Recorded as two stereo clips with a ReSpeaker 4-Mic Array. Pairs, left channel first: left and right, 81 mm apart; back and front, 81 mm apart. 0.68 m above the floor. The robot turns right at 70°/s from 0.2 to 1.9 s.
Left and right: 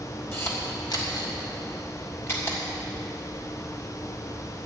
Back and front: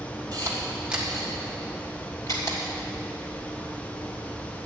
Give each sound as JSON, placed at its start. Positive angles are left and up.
{"t": 0.3, "sound": "a camera shutter", "azimuth_deg": 35, "distance_m": 2.5}